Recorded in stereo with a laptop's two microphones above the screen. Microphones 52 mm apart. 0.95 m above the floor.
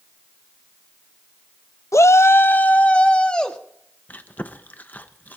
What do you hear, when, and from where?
1.9 s a shout: 70° left (ahead or behind), 0.5 m; by 3.6 s 15° left (ahead or behind), 1.4 m
4.1 s chewing: 35° left (ahead or behind), 0.8 m